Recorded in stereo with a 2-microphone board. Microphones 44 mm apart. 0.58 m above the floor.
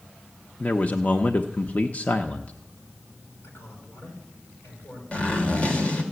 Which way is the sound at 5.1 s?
30° left (ahead or behind).